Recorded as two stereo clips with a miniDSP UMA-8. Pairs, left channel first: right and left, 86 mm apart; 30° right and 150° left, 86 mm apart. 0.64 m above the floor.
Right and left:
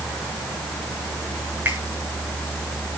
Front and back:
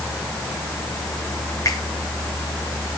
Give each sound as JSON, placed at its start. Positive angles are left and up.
{"t": 1.6, "sound": "a finger snap", "azimuth_deg": 25, "distance_m": 9.0}